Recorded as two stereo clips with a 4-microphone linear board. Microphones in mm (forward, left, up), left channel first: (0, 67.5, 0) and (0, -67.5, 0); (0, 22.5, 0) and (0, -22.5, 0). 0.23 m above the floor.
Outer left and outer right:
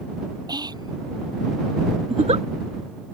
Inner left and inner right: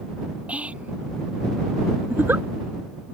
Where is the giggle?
55° right (ahead or behind).